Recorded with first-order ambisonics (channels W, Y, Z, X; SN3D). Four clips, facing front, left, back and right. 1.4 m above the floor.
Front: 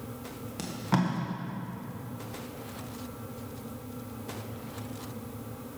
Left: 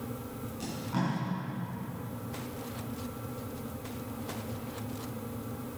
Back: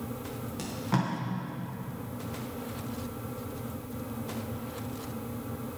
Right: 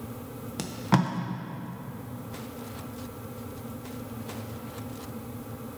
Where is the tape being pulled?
80° right, 1.3 m.